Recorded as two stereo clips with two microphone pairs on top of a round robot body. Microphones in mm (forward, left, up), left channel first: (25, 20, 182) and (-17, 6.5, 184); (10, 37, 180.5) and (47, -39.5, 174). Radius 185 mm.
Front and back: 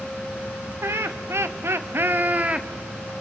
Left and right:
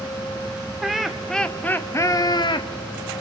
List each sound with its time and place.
0.8 s laughter: 150° right, 2.5 m; by 2.7 s 130° left, 1.5 m